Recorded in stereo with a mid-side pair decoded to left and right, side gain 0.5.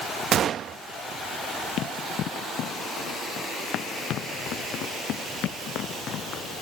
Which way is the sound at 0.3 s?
55° right.